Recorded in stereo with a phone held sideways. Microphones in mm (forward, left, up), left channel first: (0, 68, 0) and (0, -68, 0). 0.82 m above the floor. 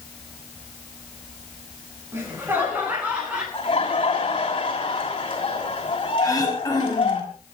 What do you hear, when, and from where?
2.1 s laughter: 15° right (ahead or behind), 10 m; by 3.4 s 10° right (ahead or behind), 10 m
3.5 s laughter: 40° left (ahead or behind), 6 m
6.2 s throat clearing: 25° left (ahead or behind), 5 m